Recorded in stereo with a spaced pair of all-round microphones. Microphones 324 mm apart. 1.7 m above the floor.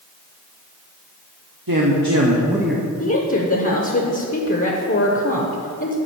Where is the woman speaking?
40° left (ahead or behind), 0.8 m.